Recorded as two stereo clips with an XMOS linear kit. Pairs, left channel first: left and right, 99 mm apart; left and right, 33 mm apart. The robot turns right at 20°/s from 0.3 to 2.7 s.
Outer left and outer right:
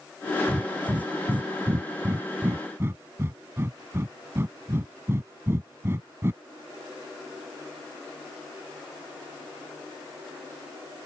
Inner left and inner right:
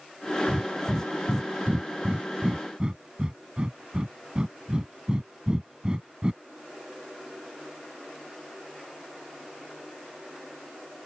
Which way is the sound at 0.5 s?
30° right (ahead or behind).